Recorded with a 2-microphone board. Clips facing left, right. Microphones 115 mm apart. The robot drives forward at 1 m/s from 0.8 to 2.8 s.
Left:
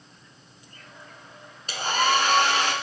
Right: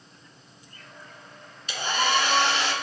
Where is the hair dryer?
40° left (ahead or behind), 2.5 m; by 2.7 s 50° left (ahead or behind), 2 m.